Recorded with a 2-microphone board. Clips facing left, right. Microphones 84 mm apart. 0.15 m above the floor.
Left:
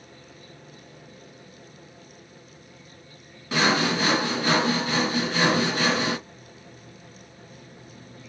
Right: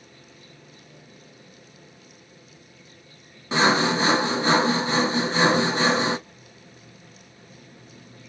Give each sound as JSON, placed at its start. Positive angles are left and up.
{"t": 3.5, "sound": "sawing", "side_deg": -25, "distance_m": 0.7}